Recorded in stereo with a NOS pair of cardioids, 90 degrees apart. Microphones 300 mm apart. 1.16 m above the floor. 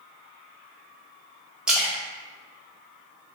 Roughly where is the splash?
Ahead.